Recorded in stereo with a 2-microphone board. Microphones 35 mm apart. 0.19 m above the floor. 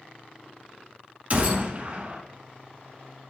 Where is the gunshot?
40° right (ahead or behind), 0.9 m.